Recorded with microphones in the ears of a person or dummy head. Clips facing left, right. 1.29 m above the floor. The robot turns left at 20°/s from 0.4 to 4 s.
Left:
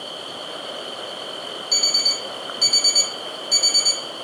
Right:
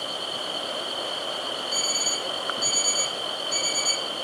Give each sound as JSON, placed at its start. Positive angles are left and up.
{"t": 1.7, "sound": "an alarm clock", "azimuth_deg": 65, "distance_m": 1.4}